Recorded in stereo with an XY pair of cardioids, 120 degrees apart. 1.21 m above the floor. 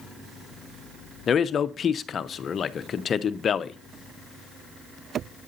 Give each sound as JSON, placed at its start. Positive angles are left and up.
{"t": 1.3, "sound": "a man speaking", "azimuth_deg": 45, "distance_m": 0.7}